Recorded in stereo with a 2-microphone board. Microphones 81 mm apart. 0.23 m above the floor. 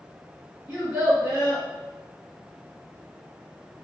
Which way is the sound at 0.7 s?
10° right (ahead or behind).